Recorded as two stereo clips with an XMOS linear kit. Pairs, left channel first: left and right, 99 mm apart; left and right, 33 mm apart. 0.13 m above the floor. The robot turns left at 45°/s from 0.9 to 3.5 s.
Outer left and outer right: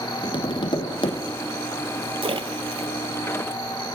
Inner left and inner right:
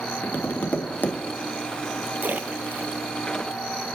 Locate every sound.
0.2 s tapping: 55° left (ahead or behind), 1.1 m; by 1.2 s 65° left (ahead or behind), 1.1 m
2.2 s a splash: 65° right (ahead or behind), 0.6 m; by 2.9 s 70° right (ahead or behind), 0.6 m